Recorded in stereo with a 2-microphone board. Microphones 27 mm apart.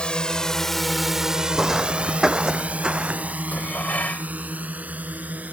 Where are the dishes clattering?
80° left.